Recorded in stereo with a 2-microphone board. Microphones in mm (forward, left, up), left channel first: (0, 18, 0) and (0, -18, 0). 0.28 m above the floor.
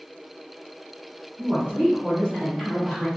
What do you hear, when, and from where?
1.4 s a woman speaking: 35° right (ahead or behind), 1.8 m; by 3.1 s 5° right (ahead or behind), 1.1 m